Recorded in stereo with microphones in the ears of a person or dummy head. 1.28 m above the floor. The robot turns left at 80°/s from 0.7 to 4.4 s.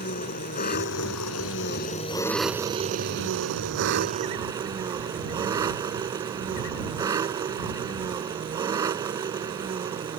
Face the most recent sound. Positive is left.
turn(degrees=-160)